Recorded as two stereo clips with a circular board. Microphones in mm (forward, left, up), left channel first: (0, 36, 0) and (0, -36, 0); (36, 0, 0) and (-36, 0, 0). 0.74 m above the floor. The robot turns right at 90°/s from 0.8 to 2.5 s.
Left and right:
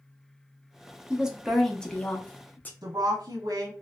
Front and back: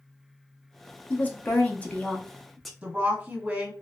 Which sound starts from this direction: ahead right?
A woman speaking, at 1.1 s.